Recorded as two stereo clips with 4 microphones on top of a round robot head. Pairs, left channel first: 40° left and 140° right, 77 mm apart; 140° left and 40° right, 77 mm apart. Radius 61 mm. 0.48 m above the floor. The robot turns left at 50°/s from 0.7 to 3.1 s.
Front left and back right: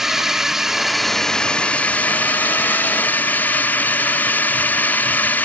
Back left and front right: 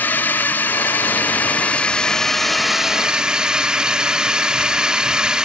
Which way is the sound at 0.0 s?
145° left.